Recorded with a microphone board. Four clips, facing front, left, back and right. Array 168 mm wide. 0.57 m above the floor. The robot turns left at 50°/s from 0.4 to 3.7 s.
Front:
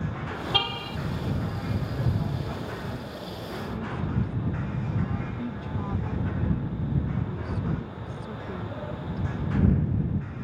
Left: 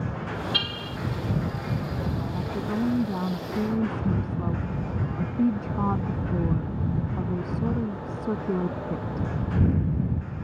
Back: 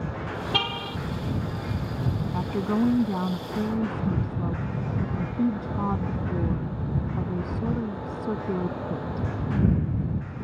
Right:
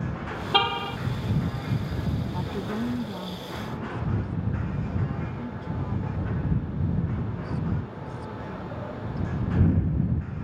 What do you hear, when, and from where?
0.5 s a car horn: 90° right; by 1.0 s 110° right
2.3 s a woman speaking: 165° right; by 9.3 s 125° left